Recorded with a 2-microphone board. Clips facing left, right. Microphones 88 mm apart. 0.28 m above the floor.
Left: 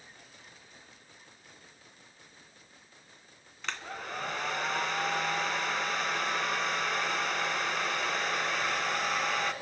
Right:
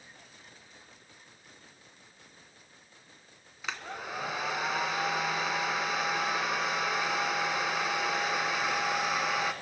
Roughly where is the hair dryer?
Centre.